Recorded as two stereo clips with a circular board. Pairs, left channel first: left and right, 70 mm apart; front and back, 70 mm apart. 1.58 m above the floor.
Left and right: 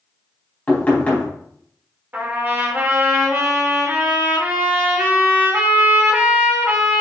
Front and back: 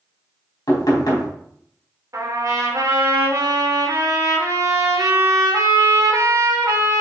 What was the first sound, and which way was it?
Knocking, 20° left.